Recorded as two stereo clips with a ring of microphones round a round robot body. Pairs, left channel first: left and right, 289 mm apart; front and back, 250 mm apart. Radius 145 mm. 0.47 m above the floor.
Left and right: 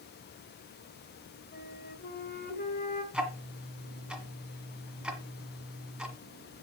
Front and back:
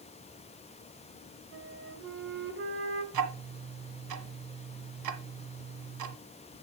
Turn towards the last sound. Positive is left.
turn(degrees=-175)